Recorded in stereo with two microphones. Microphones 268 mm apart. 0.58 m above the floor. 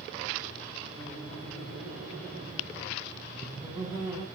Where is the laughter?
35° right (ahead or behind), 3 m; by 4.2 s 15° right (ahead or behind), 4.5 m.